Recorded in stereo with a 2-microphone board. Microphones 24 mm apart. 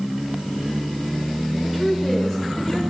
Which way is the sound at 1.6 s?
20° right (ahead or behind).